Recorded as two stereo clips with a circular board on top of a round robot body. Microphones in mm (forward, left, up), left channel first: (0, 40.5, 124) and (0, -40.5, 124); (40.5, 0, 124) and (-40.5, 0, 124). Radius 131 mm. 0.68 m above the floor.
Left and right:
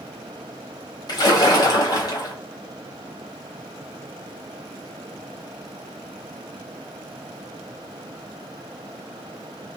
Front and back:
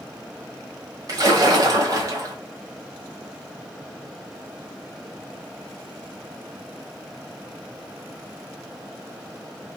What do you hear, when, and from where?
1.1 s a splash: 130° left, 1.1 m